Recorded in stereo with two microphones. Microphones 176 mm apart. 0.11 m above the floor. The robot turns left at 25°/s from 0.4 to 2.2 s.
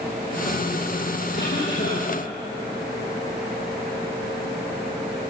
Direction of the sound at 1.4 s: 75° left (ahead or behind).